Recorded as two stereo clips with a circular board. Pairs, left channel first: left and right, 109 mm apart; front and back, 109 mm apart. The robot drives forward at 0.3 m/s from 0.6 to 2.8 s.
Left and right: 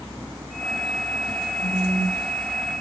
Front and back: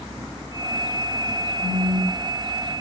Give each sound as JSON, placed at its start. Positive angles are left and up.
{"t": 1.6, "sound": "a phone buzzing", "azimuth_deg": -50, "distance_m": 1.0}